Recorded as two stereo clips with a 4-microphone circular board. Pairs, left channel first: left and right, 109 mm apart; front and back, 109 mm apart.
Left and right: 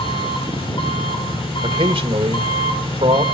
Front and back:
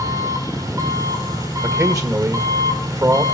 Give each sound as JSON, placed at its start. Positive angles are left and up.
{"t": 0.0, "sound": "an engine running", "azimuth_deg": 125, "distance_m": 4.0}
{"t": 1.6, "sound": "a man speaking", "azimuth_deg": -125, "distance_m": 2.0}